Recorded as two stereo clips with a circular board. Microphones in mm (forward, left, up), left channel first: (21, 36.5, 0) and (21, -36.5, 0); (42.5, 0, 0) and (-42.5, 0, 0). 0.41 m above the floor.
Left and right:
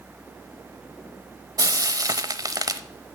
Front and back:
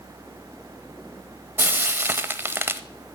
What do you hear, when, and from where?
1.6 s frying: 120° right, 0.8 m